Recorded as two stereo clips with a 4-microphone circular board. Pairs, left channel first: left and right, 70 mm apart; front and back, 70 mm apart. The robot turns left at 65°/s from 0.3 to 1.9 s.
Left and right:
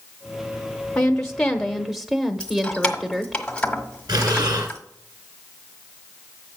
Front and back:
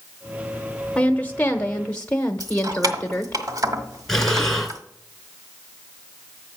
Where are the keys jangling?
165° left, 1.4 m.